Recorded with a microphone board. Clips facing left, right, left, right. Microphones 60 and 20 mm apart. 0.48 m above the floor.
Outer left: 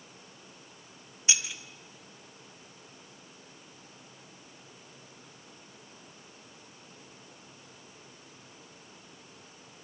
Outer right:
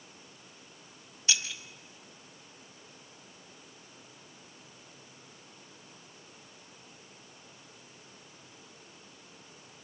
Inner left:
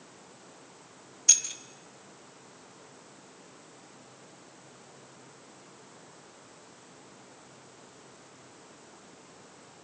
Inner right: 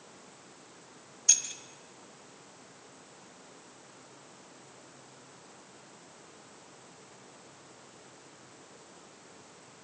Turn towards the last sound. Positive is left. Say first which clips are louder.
# even, inner left 3 dB
turn(degrees=20)  # may be behind; listen again after turning